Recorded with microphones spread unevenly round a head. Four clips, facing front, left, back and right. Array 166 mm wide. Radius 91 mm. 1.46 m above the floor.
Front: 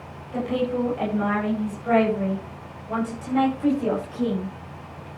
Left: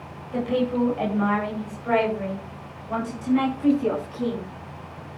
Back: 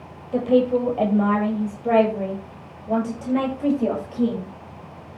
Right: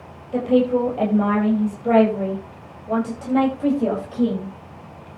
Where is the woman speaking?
145° right, 8 m; by 4.5 s 125° right, 9 m.